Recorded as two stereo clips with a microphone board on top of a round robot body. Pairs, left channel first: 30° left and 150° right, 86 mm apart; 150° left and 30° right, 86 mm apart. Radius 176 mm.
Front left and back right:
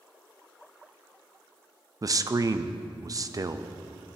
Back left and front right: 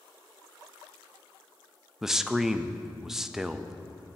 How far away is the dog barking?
No dog barking in this recording.